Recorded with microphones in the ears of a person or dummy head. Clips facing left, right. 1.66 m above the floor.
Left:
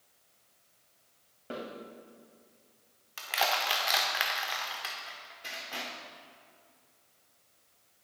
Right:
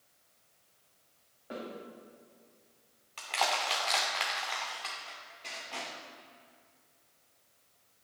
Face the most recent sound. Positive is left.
turn(degrees=10)  # may be behind; listen again after turning